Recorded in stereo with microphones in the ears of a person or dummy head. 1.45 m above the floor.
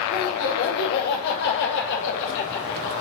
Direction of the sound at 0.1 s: 55° left (ahead or behind).